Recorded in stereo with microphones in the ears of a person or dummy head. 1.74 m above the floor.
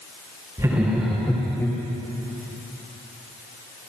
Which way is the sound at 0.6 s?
20° right (ahead or behind).